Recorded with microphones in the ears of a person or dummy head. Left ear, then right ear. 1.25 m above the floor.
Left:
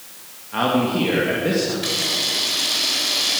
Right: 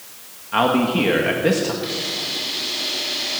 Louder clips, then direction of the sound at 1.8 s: Left 4 dB; 35° left (ahead or behind).